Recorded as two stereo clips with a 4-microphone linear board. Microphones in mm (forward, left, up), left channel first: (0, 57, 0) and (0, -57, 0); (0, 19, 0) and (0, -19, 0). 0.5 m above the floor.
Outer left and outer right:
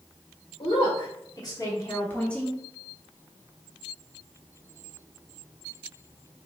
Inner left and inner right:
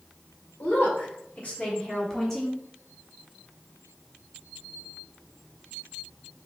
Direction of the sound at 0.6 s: 50° left (ahead or behind).